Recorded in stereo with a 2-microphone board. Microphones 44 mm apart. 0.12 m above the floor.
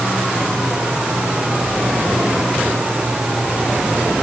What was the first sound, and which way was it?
Only background noise.